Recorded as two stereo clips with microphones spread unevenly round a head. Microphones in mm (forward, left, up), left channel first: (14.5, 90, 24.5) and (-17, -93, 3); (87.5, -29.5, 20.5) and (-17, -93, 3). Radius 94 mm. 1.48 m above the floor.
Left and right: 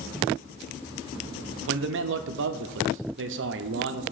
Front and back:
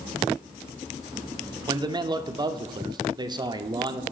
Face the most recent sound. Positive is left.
turn(degrees=-95)